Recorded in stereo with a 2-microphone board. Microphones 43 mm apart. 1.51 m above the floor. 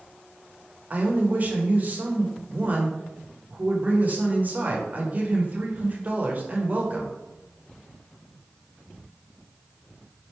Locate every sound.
0.9 s a man speaking: 40° right (ahead or behind), 0.9 m